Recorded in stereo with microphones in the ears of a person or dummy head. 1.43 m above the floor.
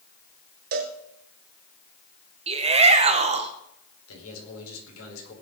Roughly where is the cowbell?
Right.